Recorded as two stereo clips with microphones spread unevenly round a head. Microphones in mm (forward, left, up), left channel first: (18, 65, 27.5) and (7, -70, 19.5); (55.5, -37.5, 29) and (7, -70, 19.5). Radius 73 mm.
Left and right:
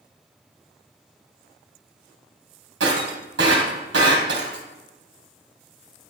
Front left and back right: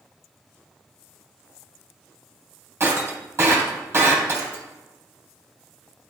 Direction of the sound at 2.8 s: 100° right.